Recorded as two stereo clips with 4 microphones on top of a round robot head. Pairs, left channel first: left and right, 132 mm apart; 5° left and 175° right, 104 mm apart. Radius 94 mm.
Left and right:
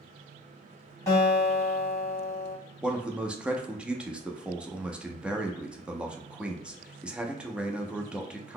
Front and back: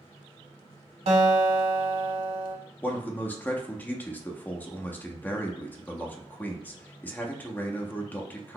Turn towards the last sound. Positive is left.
turn(degrees=-20)